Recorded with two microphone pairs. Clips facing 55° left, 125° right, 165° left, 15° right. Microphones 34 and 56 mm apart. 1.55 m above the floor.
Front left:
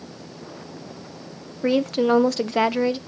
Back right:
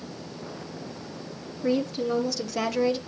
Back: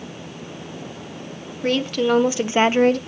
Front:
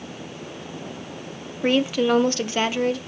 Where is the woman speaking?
55° left, 0.9 m; by 3.0 s 135° left, 0.6 m.